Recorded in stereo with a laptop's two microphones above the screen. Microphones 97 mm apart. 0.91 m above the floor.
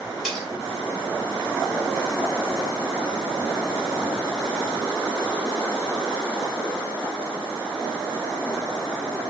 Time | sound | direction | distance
0.2 | cutlery clinking | 5° left (ahead or behind) | 2.5 m